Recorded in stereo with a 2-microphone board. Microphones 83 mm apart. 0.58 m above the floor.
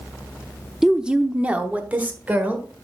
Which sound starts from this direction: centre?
A woman speaking, at 0.8 s.